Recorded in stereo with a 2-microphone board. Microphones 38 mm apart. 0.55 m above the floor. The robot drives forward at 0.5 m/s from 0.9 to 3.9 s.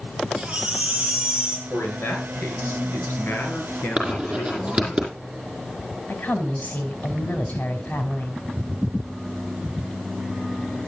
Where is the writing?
30° right (ahead or behind), 5 m.